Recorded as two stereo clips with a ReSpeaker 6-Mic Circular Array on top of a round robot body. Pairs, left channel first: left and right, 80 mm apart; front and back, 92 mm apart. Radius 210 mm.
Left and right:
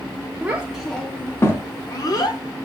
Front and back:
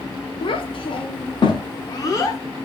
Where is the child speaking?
20° right, 0.8 m; by 2.4 s 55° left, 1.1 m.